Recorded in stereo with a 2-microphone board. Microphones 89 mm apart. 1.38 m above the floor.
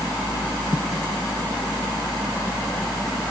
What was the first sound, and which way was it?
Only background noise.